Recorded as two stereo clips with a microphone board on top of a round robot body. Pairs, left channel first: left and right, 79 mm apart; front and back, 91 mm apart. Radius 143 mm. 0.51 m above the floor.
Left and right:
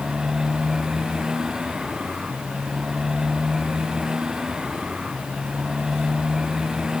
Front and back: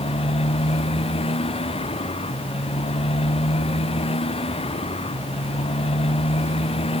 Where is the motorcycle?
10° right.